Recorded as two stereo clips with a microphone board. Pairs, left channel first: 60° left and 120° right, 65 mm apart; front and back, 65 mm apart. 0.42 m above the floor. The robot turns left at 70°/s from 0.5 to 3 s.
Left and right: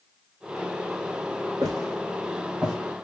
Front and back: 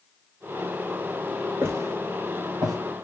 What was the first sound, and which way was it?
Footsteps, 120° right.